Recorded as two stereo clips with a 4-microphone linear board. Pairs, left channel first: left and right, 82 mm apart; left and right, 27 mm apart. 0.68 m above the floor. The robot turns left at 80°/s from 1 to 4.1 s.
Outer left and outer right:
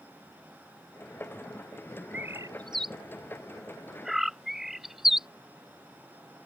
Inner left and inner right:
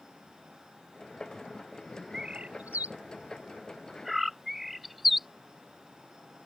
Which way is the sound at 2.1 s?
20° right (ahead or behind).